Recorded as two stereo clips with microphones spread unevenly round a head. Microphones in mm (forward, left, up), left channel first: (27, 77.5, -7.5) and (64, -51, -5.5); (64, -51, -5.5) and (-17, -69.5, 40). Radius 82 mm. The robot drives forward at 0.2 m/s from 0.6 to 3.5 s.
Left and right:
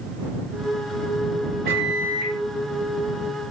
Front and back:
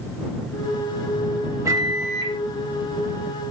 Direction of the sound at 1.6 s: 115° right.